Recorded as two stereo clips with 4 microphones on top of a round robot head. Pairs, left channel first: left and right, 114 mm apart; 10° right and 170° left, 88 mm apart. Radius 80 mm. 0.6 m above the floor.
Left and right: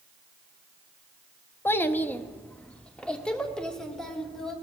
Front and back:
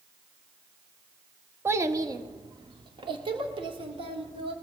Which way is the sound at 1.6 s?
140° left.